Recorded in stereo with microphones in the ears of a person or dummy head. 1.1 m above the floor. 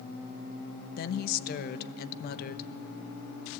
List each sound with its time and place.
1.0 s a woman speaking: 55° left (ahead or behind), 1.0 m